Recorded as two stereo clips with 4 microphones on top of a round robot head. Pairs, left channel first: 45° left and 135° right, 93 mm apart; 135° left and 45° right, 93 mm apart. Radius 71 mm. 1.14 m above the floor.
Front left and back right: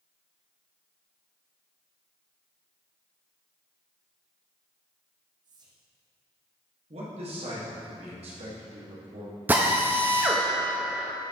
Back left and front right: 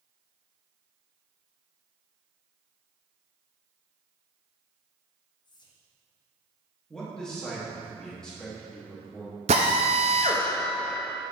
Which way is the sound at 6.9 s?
145° right.